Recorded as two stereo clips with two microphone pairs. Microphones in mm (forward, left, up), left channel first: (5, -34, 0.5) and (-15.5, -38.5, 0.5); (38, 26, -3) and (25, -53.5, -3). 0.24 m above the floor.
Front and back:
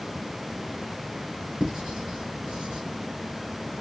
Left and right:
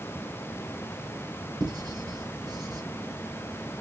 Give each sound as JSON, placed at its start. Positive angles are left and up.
{"t": 1.6, "sound": "writing", "azimuth_deg": -135, "distance_m": 4.0}